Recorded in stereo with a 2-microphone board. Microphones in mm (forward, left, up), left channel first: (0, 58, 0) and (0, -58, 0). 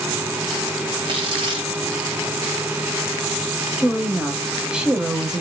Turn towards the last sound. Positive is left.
turn(degrees=-5)  # may be behind; listen again after turning